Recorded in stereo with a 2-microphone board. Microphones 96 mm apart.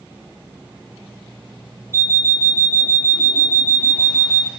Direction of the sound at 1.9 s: 30° right (ahead or behind).